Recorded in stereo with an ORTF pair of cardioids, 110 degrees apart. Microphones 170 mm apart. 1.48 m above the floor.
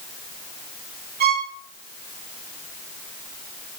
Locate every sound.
1.2 s a violin: 65° right, 3 m